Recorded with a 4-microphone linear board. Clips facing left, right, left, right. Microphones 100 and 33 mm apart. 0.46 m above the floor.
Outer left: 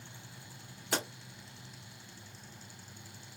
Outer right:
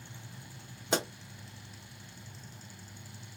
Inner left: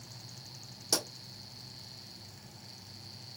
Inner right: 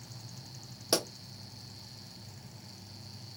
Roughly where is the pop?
Centre.